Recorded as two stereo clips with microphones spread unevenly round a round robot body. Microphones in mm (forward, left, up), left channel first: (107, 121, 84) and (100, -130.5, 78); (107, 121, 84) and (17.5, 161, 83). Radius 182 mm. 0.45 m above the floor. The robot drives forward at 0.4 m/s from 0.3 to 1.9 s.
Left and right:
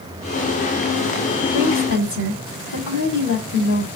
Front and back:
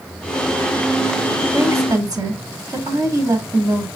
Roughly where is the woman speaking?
Left.